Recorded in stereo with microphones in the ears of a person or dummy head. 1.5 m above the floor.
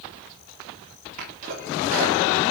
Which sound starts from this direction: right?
A sneeze, at 1.2 s.